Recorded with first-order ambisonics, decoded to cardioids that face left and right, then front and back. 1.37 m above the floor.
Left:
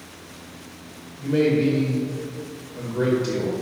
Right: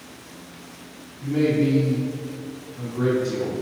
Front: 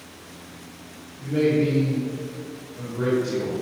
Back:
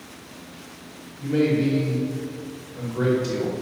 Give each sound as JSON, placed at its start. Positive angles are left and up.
{"t": 1.2, "sound": "a man speaking", "azimuth_deg": 100, "distance_m": 1.7}